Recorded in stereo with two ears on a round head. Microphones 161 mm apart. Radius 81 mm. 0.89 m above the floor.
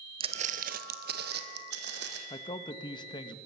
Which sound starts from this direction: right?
Footsteps, at 0.2 s.